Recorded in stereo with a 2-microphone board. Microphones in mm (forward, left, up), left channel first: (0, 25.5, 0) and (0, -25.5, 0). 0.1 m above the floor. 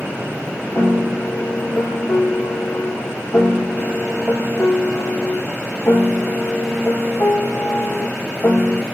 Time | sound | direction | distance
0.8 | a piano | 65° left (ahead or behind) | 1.3 m